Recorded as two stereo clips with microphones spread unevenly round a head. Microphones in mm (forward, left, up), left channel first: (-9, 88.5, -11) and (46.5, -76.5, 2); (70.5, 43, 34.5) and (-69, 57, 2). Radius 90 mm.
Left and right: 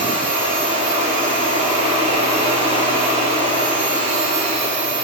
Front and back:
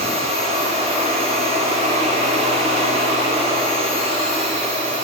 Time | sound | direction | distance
0.0 | a machine running | 130° right | 2.5 m